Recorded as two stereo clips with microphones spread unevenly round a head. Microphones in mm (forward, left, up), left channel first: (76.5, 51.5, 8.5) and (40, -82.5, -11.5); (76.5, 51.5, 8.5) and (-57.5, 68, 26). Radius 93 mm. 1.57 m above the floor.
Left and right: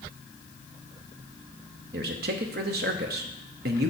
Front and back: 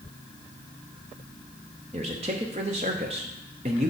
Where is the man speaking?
130° right, 0.8 m.